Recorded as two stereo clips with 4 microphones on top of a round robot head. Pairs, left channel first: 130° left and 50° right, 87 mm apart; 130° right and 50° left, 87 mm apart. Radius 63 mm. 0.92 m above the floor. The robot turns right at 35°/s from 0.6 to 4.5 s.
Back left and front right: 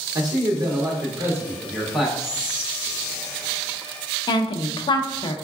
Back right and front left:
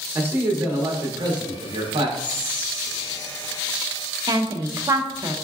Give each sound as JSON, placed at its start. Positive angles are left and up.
{"t": 0.1, "sound": "a man speaking", "azimuth_deg": -10, "distance_m": 0.7}
{"t": 2.2, "sound": "whispering", "azimuth_deg": -135, "distance_m": 1.3}
{"t": 4.3, "sound": "a woman speaking", "azimuth_deg": 95, "distance_m": 0.5}